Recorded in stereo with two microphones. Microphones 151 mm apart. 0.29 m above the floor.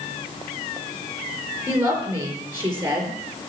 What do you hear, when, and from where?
1.7 s a woman speaking: 15° right (ahead or behind), 5.5 m